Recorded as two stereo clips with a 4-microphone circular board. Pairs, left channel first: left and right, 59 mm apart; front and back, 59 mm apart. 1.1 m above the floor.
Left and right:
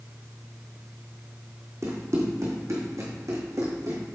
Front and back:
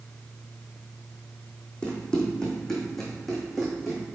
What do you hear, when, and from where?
1.8 s running footsteps: 70° right, 2 m; by 4.0 s 95° right, 3 m